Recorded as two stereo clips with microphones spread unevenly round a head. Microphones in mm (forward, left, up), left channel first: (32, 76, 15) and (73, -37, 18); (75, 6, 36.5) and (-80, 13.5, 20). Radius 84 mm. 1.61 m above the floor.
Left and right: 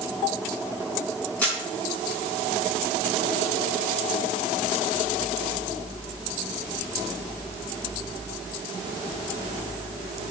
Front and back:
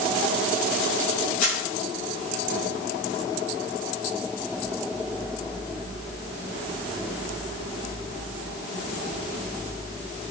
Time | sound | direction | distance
1.4 | a camera shutter | 30° left | 5.5 m